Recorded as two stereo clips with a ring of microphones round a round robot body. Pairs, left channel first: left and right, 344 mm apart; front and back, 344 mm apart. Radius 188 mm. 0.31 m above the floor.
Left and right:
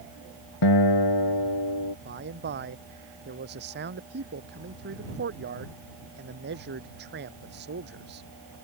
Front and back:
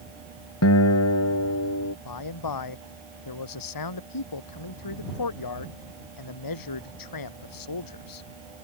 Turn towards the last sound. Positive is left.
turn(degrees=-25)